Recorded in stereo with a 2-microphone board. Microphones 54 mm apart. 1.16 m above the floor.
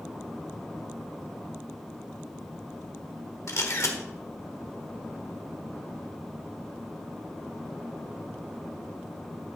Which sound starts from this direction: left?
A camera shutter, at 3.5 s.